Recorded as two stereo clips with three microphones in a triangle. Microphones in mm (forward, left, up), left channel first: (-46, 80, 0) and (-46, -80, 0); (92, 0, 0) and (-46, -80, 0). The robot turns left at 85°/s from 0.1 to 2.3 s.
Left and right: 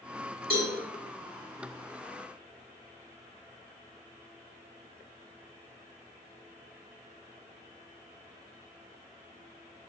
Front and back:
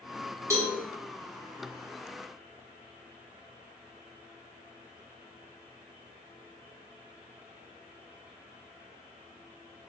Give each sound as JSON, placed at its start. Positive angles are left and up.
{"t": 0.5, "sound": "a cowbell", "azimuth_deg": -75, "distance_m": 1.5}